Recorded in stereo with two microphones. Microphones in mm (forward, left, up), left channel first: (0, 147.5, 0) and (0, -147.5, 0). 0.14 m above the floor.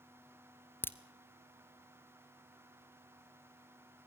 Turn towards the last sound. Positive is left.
turn(degrees=5)  # may be behind; listen again after turning